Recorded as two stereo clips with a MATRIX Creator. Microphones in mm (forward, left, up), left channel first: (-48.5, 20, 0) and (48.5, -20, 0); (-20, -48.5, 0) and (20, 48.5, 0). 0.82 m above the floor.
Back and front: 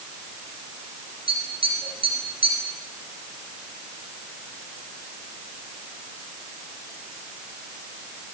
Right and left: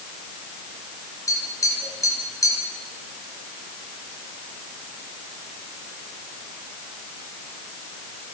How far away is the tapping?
About 4 m.